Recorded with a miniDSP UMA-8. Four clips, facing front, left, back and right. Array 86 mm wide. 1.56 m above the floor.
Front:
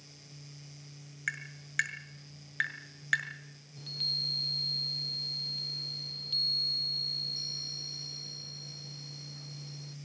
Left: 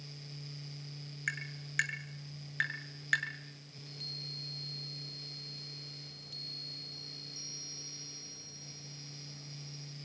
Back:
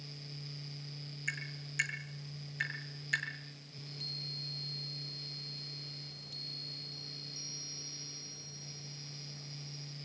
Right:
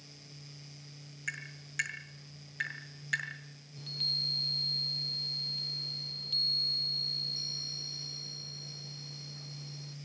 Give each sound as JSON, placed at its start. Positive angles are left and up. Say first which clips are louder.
{"t": 1.3, "sound": "tapping", "louder": "left 2 dB, front 4 dB", "azimuth_deg": 30, "distance_m": 6.0}
{"t": 3.8, "sound": "a chime", "louder": "right 5 dB, front 3 dB", "azimuth_deg": -45, "distance_m": 0.6}